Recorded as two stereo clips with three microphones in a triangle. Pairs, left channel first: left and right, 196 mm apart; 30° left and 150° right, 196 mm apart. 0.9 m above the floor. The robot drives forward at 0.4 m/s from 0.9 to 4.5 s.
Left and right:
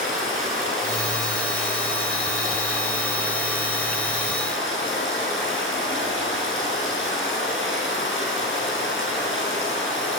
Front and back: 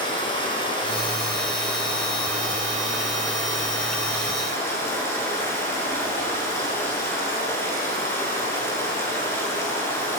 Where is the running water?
95° left, 7.5 m; by 10.2 s 105° left, 8 m.